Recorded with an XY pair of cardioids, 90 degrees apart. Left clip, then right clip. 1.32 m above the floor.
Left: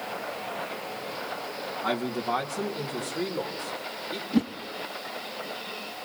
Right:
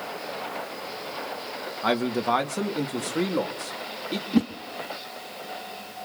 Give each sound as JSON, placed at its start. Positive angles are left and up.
{"t": 1.8, "sound": "a man speaking", "azimuth_deg": -55, "distance_m": 1.9}
{"t": 4.3, "sound": "a whoosh", "azimuth_deg": -20, "distance_m": 1.3}